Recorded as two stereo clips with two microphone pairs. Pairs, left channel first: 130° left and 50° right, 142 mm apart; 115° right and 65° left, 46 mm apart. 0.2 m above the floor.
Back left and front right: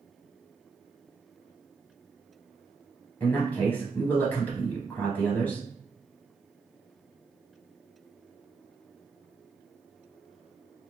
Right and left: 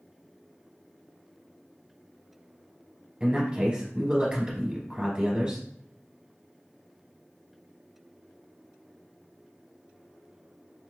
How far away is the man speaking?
About 1.6 m.